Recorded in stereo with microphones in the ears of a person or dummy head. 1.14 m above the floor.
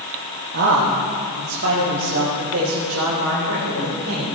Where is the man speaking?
60° right (ahead or behind), 1.1 m; by 4.3 s 75° right (ahead or behind), 4 m.